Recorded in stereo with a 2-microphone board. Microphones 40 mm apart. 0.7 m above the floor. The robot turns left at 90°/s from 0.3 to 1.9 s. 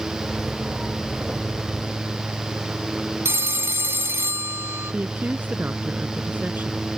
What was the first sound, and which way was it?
A phone ringing, 80° right.